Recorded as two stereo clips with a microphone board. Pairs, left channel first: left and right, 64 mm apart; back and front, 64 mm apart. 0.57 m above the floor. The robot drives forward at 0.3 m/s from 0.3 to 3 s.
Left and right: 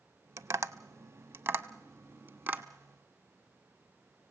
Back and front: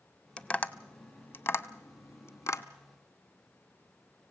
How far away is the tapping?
About 0.6 m.